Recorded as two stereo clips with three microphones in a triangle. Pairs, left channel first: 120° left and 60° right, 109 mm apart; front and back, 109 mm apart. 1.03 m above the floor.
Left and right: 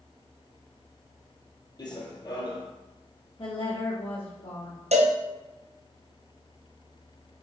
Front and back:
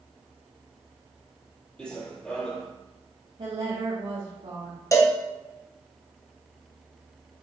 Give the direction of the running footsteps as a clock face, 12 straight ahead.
9 o'clock.